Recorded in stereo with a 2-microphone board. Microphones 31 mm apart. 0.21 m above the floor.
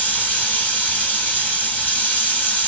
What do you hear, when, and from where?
0.0 s running water: 75° left (ahead or behind), 1.6 m